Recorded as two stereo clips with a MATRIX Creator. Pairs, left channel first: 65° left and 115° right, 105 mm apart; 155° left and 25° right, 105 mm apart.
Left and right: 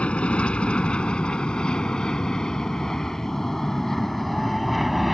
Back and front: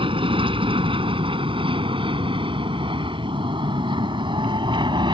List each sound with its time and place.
0.0 s an aircraft: 10° right; by 5.1 s 25° right